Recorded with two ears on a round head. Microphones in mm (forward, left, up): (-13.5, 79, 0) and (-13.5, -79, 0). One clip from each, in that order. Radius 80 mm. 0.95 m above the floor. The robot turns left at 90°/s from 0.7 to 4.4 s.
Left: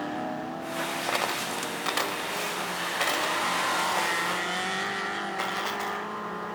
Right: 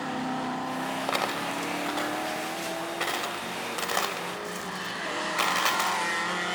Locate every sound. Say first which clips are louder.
1.1 s a dropped coin: right 1 dB; 15° right (ahead or behind), 1.7 m; by 6.0 s 70° right (ahead or behind), 1.7 m